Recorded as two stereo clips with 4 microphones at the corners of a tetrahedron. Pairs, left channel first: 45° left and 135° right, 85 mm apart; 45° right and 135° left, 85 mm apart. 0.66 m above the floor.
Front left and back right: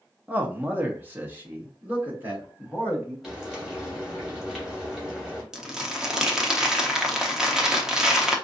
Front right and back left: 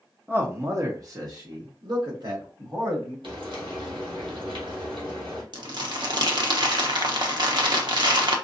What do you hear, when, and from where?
0.3 s a man speaking: 175° left, 0.8 m; by 3.1 s 160° left, 2.5 m
3.2 s frying: 140° left, 2.5 m
5.5 s crumpling: 145° left, 0.8 m